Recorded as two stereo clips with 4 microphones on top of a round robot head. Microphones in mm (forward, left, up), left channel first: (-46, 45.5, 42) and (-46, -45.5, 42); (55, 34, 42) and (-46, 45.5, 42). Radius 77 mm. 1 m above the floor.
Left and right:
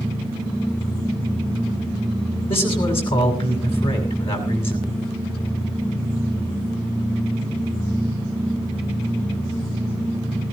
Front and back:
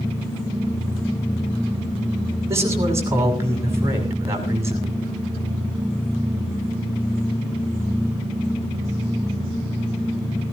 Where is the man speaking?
110° left, 6.5 m.